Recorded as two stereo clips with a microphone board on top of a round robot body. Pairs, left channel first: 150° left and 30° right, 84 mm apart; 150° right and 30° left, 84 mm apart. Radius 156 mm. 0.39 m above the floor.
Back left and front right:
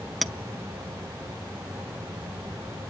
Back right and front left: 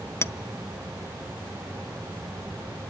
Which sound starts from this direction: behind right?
A clink, at 0.2 s.